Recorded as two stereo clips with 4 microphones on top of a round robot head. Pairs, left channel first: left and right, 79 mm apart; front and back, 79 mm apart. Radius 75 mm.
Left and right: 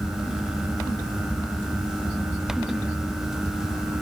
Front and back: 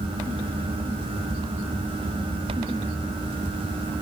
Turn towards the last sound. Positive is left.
No sound to turn to.